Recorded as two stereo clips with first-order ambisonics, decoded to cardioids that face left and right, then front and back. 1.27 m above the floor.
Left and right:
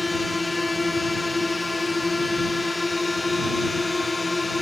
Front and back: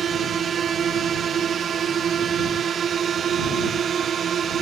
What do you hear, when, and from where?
0.0 s a drone: 160° left